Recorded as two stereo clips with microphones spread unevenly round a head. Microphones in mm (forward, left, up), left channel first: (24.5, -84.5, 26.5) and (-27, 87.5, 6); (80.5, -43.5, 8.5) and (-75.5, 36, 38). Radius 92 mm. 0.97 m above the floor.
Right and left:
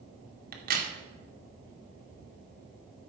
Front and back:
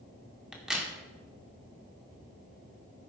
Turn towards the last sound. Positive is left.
turn(degrees=65)